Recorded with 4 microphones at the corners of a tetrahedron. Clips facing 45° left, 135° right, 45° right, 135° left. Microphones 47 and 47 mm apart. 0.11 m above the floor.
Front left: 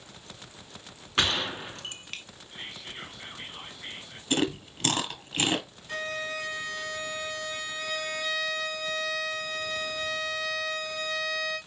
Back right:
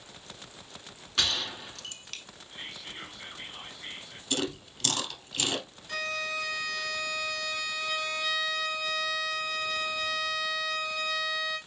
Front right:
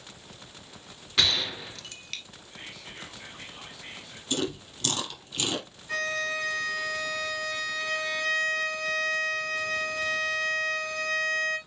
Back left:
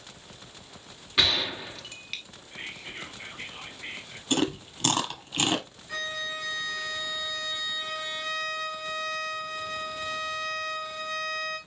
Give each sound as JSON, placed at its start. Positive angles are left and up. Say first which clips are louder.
{"t": 1.2, "sound": "a gunshot", "louder": "front left 4 dB, back left 1 dB", "azimuth_deg": 65, "distance_m": 0.5}
{"t": 2.5, "sound": "whispering", "louder": "front left 1 dB, back left 5 dB", "azimuth_deg": 110, "distance_m": 1.3}
{"t": 4.3, "sound": "chewing", "louder": "front left 5 dB, back left 4 dB", "azimuth_deg": 90, "distance_m": 1.2}
{"t": 5.9, "sound": "a violin", "louder": "even, front right 4 dB", "azimuth_deg": -20, "distance_m": 2.5}